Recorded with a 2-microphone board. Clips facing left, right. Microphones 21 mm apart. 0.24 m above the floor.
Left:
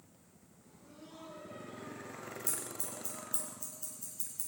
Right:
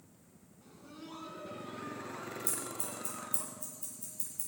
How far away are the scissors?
About 3.5 m.